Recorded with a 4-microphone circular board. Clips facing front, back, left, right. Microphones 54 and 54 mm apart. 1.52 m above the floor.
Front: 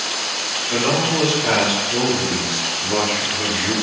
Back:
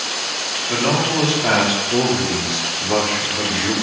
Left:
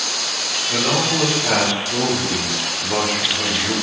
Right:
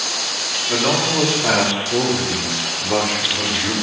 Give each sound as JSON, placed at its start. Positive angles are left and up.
{"t": 0.7, "sound": "a man speaking", "azimuth_deg": -120, "distance_m": 3.0}